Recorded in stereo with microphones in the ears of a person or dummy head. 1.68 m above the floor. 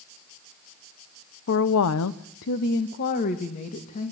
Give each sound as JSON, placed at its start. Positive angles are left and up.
{"t": 1.5, "sound": "a woman speaking", "side_deg": 55, "distance_m": 1.3}